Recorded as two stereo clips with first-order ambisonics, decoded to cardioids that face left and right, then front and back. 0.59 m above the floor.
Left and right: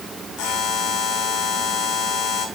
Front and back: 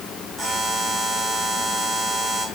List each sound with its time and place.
0.4 s a buzzer: 105° left, 2.5 m